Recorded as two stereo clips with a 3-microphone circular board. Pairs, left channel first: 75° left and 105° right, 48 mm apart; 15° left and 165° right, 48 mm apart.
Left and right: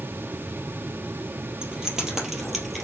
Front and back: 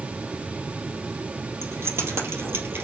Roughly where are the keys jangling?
Behind.